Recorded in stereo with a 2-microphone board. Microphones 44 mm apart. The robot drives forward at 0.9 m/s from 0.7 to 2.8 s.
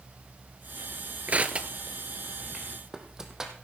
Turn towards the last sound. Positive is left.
turn(degrees=-15)  # may be behind; listen again after turning